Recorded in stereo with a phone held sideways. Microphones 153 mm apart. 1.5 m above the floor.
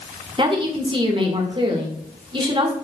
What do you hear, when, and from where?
0.4 s a woman speaking: 35° right (ahead or behind), 2.0 m